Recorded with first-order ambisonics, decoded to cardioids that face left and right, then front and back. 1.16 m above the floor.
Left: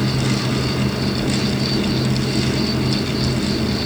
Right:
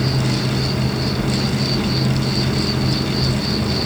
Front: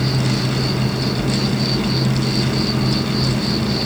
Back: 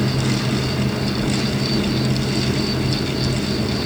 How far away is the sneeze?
I don't hear a sneeze.